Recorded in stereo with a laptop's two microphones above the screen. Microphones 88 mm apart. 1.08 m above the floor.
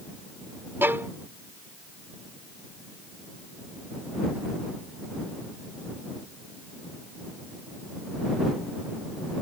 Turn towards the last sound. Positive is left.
turn(degrees=-25)  # may be behind; listen again after turning